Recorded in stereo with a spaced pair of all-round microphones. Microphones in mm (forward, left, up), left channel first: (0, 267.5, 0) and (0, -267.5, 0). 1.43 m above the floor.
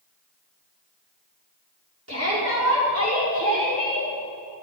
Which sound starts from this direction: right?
A shout, at 2.1 s.